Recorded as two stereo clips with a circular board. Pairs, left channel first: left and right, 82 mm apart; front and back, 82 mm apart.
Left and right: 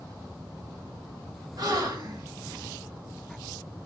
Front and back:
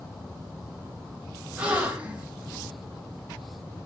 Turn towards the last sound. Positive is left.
turn(degrees=-110)